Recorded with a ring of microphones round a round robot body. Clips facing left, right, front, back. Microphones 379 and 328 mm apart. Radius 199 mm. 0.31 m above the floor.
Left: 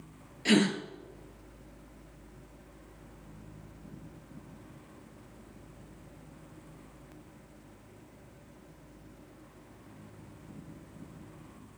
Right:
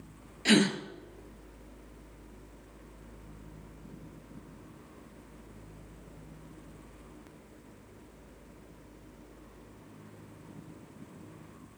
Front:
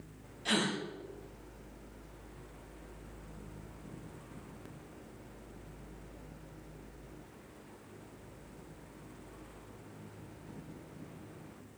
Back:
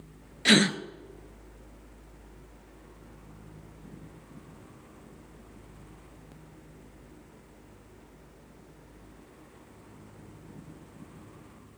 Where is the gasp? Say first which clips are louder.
Even, back 10 dB; 175° right, 1.0 m.